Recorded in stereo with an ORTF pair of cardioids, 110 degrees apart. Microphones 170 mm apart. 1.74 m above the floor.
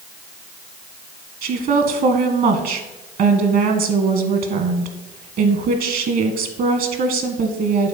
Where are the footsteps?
No footsteps in this recording.